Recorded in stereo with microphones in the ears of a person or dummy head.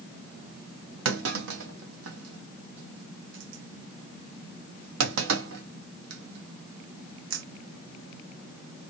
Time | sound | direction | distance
1.1 | a clunk | 75° right (ahead or behind) | 0.8 m